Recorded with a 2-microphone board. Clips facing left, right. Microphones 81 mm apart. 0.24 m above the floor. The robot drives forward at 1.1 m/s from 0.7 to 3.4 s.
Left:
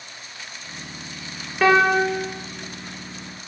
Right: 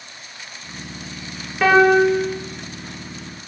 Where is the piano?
Centre (ahead or behind), 6 m.